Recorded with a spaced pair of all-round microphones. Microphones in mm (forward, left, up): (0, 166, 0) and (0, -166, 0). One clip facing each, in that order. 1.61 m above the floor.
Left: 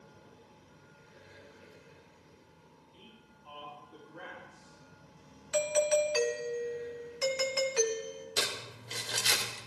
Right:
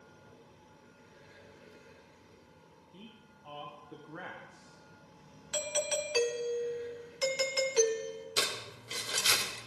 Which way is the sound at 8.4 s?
10° right (ahead or behind).